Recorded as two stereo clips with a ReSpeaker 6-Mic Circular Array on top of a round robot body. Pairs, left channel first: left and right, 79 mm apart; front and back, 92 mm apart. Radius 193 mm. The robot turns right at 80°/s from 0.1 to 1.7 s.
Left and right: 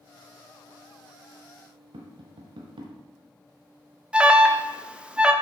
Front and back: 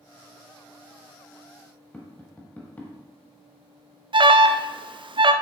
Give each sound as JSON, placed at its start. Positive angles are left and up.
{"t": 1.9, "sound": "tapping", "azimuth_deg": -75, "distance_m": 1.0}
{"t": 4.1, "sound": "an alarm", "azimuth_deg": -165, "distance_m": 0.7}